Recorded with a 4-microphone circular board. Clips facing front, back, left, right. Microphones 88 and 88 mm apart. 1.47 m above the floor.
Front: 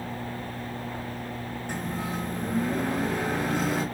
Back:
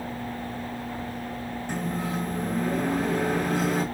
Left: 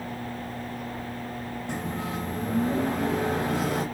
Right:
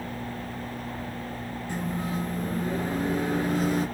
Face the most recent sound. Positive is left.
turn(degrees=85)